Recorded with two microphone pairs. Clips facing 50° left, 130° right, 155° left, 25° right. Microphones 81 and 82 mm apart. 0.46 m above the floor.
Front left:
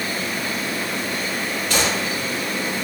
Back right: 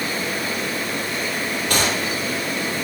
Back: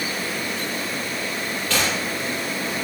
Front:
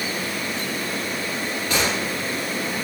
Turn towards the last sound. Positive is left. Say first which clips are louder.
# even, even
turn(degrees=-100)